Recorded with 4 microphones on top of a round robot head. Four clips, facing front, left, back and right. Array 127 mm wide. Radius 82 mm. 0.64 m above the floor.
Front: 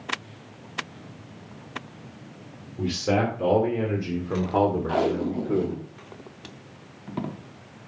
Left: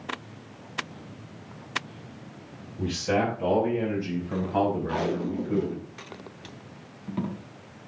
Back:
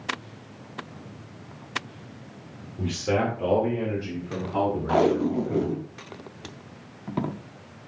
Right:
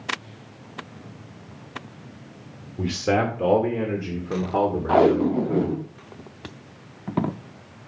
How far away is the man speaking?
About 2 m.